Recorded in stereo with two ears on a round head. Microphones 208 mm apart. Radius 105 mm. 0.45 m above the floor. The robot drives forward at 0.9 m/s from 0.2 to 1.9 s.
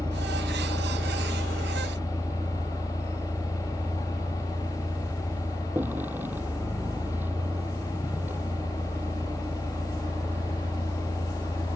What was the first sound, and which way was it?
A vehicle, 10° right (ahead or behind).